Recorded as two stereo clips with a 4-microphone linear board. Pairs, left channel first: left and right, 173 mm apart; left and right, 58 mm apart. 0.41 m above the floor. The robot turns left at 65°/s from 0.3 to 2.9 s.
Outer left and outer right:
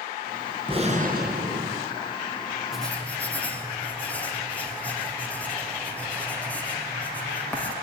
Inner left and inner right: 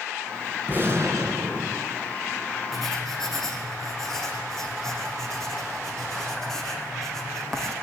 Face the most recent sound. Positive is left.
turn(degrees=10)  # may be behind; listen again after turning